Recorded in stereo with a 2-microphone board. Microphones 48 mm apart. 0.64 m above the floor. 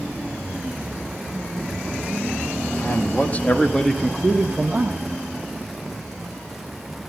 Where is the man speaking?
40° left (ahead or behind), 1.7 m; by 5.0 s 40° right (ahead or behind), 1.1 m.